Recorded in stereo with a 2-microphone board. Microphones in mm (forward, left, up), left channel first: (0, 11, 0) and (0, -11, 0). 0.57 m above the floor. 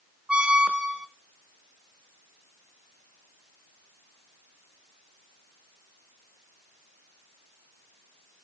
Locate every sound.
0.3 s a squeak: 60° right (ahead or behind), 0.8 m